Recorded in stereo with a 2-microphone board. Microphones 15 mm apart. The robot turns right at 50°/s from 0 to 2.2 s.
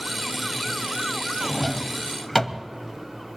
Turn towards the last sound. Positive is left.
turn(degrees=20)  # may be behind; listen again after turning